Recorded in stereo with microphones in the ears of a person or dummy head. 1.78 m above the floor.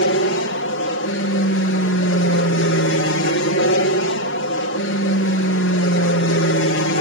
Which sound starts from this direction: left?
An aircraft, at 0.0 s.